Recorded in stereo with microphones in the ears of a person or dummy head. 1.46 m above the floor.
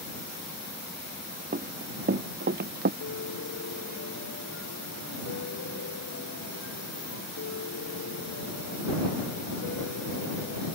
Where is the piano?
85° left.